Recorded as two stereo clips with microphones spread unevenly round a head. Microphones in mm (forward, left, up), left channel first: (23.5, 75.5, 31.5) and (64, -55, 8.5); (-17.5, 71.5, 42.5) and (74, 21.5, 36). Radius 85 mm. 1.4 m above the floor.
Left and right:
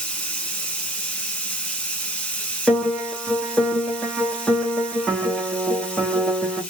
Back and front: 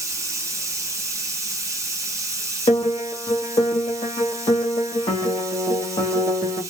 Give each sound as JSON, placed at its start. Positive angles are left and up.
{"t": 0.0, "sound": "running water", "azimuth_deg": 30, "distance_m": 0.8}
{"t": 2.7, "sound": "a piano", "azimuth_deg": -160, "distance_m": 0.8}